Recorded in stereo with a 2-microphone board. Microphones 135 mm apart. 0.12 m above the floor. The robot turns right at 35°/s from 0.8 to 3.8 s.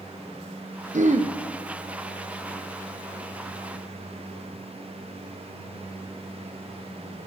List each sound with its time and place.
0.9 s throat clearing: 75° right (ahead or behind), 0.6 m; by 1.3 s 60° right (ahead or behind), 0.6 m